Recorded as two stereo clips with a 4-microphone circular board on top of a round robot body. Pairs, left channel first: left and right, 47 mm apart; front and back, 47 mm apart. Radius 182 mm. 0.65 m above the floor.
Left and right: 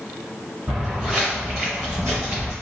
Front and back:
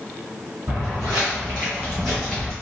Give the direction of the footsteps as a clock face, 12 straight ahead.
5 o'clock.